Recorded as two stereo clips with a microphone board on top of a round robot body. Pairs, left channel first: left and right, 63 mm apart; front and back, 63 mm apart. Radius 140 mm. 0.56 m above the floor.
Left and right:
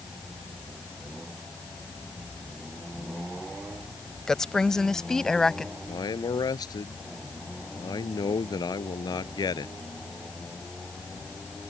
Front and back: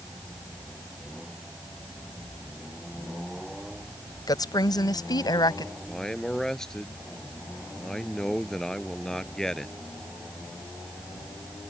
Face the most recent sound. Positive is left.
turn(degrees=85)